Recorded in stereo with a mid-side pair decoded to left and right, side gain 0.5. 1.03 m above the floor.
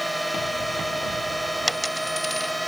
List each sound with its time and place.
0.0 s a drone: 5° right
1.7 s a dropped coin: 5° left